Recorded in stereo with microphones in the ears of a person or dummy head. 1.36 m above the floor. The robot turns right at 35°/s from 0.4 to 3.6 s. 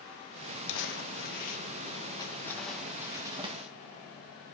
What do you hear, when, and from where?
0.7 s crumpling: 75° left (ahead or behind), 1.2 m; by 3.7 s 30° right (ahead or behind), 1.2 m